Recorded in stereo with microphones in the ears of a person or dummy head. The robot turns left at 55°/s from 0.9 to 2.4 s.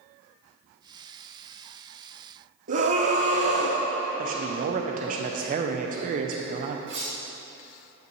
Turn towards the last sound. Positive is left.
turn(degrees=-65)  # may be behind; listen again after turning